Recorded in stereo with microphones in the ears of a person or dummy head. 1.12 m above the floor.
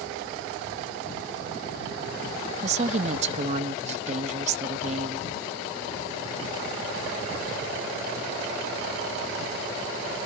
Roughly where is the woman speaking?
Right.